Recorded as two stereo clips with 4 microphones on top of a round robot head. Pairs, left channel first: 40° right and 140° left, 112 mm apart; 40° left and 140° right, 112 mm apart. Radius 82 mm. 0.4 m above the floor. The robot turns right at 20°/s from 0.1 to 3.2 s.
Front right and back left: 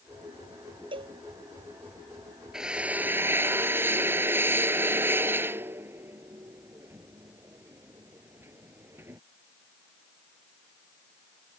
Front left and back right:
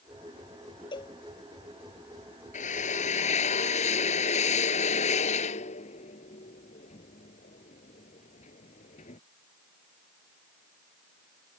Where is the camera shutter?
I don't hear a camera shutter.